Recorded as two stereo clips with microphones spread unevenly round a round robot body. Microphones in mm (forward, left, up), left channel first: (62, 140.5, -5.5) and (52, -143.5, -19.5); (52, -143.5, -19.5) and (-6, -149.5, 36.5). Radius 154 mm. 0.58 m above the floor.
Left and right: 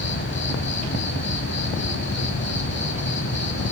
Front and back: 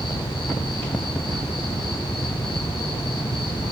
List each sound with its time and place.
0.0 s an insect: 35° left, 1.2 m